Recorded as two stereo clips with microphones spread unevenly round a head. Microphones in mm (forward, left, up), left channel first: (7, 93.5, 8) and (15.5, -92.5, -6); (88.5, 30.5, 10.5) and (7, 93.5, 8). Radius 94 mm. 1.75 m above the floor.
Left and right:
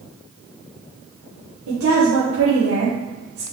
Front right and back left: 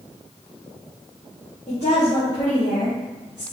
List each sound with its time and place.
1.7 s a woman speaking: 95° right, 1.8 m